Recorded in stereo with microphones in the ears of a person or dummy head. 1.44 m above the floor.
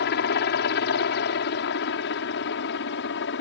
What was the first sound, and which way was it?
A helicopter, 60° left (ahead or behind).